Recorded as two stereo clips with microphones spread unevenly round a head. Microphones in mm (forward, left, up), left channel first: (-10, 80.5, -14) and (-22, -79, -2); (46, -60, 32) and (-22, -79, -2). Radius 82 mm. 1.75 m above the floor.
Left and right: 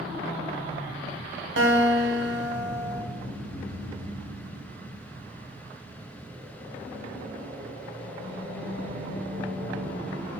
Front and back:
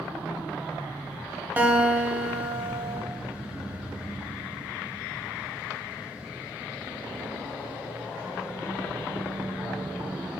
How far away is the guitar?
About 1.5 m.